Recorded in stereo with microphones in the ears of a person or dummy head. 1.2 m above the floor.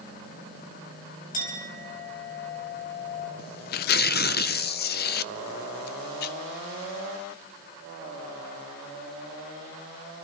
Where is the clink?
35° left (ahead or behind), 4 m.